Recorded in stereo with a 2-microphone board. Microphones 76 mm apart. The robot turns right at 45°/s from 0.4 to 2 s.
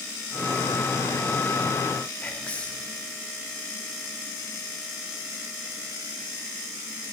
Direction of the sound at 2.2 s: 20° left (ahead or behind).